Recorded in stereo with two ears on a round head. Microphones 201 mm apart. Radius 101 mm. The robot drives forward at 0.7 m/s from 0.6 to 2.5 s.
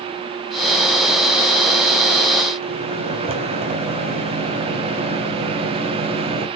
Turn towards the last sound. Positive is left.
turn(degrees=-30)  # may be behind; listen again after turning